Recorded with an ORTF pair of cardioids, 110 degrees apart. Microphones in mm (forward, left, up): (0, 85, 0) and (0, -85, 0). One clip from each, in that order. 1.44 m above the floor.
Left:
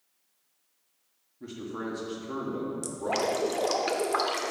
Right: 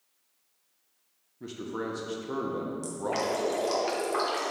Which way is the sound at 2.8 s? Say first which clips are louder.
Left 2 dB; 30° left.